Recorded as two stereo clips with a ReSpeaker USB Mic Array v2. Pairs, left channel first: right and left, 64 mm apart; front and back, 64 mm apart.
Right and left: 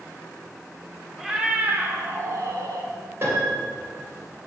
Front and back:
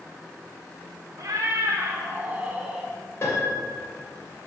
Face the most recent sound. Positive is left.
turn(degrees=45)